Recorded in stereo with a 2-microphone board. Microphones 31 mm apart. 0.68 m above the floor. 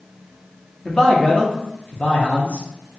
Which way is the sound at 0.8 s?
25° left (ahead or behind).